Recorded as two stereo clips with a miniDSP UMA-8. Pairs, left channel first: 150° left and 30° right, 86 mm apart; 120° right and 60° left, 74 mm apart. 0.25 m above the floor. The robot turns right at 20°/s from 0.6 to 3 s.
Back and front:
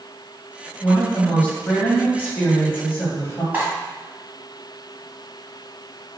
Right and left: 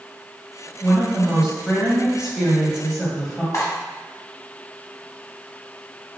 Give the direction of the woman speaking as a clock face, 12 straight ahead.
8 o'clock.